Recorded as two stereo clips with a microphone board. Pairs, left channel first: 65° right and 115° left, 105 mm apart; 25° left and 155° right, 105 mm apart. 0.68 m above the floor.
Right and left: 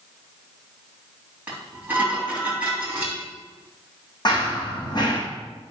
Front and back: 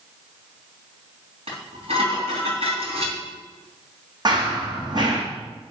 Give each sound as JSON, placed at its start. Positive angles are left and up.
{"t": 1.5, "sound": "dishes clattering", "azimuth_deg": -175, "distance_m": 3.0}
{"t": 4.2, "sound": "running footsteps", "azimuth_deg": -110, "distance_m": 2.5}